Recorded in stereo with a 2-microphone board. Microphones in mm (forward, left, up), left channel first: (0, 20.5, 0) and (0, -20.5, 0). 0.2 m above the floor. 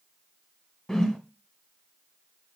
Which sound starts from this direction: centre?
A whoosh, at 0.9 s.